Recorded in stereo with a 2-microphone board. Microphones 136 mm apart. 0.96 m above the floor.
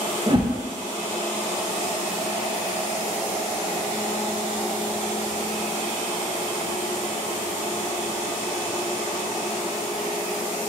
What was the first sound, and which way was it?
A whoosh, 35° right (ahead or behind).